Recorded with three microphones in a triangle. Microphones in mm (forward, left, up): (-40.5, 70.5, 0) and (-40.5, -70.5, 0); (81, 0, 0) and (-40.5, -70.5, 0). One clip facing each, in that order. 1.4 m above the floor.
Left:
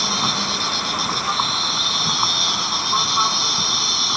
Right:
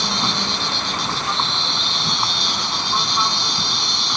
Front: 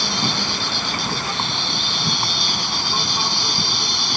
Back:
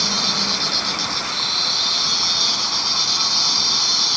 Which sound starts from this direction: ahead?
An insect, at 0.0 s.